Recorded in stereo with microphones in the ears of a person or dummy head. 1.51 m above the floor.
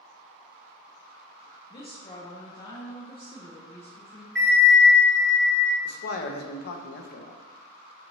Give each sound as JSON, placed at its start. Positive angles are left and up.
{"t": 1.7, "sound": "a woman speaking", "side_deg": 30, "distance_m": 0.6}
{"t": 4.3, "sound": "a bell", "side_deg": 0, "distance_m": 1.3}
{"t": 5.8, "sound": "a man speaking", "side_deg": 60, "distance_m": 0.6}